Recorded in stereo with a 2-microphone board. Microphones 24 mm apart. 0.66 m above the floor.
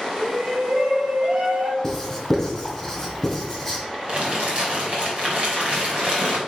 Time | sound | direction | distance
0.2 | a shout | 10° right (ahead or behind) | 1.9 m
1.8 | writing | 10° left (ahead or behind) | 2.5 m
4.1 | crumpling | 45° right (ahead or behind) | 3 m